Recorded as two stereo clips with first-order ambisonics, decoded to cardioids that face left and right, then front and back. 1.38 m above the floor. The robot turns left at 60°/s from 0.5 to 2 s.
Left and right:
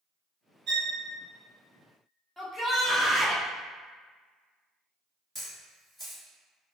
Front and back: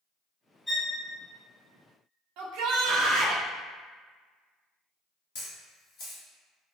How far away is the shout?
About 0.6 m.